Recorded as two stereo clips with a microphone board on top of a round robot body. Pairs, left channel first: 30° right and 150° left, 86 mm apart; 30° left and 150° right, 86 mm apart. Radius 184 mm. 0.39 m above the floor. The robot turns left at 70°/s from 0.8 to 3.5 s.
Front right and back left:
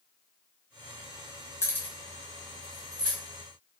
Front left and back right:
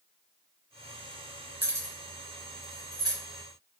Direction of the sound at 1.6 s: 85° right.